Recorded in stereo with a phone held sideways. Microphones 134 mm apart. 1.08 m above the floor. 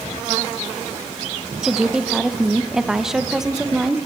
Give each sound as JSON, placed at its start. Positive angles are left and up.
{"t": 1.6, "sound": "a woman speaking", "side_deg": -5, "distance_m": 1.1}